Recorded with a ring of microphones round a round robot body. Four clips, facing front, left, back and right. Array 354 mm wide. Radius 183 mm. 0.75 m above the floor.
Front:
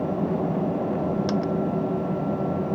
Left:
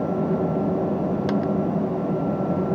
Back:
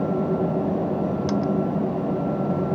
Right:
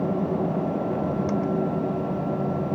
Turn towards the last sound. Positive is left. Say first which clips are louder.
# left 2 dB, back 2 dB
turn(degrees=85)